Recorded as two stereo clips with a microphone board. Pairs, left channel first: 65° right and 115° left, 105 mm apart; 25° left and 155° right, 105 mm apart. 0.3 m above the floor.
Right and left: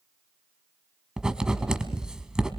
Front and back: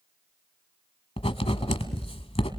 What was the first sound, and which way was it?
Writing, 30° left.